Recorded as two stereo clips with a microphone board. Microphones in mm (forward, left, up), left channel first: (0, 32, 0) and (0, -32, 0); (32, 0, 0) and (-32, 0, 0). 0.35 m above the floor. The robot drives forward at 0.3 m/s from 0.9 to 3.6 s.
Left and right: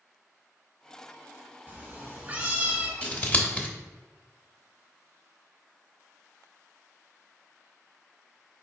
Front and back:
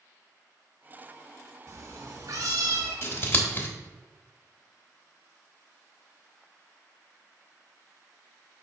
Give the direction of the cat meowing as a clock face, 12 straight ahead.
5 o'clock.